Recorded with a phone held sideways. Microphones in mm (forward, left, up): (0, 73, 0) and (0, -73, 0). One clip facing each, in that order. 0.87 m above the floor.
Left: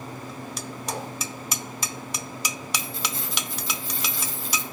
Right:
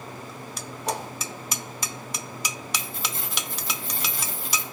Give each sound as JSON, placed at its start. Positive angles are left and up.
{"t": 0.8, "sound": "a whoosh", "side_deg": -85, "distance_m": 4.5}
{"t": 2.8, "sound": "keys jangling", "side_deg": -60, "distance_m": 3.0}